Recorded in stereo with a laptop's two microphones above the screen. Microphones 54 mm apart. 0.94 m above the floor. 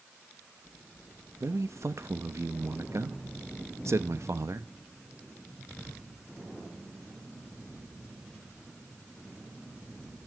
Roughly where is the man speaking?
Right.